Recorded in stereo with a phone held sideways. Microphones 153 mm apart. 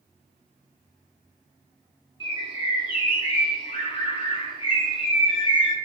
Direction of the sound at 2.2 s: 30° left (ahead or behind).